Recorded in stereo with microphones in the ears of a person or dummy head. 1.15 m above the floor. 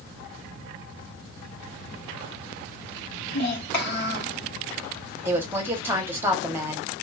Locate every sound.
3.3 s a child speaking: 65° left (ahead or behind), 1.3 m
5.2 s a woman speaking: 10° right (ahead or behind), 0.9 m